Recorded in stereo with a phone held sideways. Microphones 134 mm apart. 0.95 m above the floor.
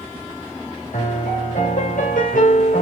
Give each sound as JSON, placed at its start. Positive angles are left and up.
{"t": 0.9, "sound": "a piano", "side_deg": 75, "distance_m": 3.0}